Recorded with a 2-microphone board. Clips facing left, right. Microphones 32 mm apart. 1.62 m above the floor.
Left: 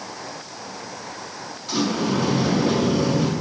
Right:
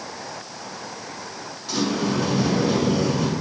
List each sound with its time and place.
1.7 s a sliding door: 10° left (ahead or behind), 4 m